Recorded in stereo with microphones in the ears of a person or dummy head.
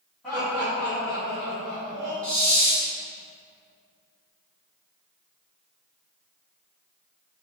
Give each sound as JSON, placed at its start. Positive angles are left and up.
{"t": 0.2, "sound": "laughter", "side_deg": 0, "distance_m": 1.4}
{"t": 2.2, "sound": "a hiss", "side_deg": 10, "distance_m": 0.7}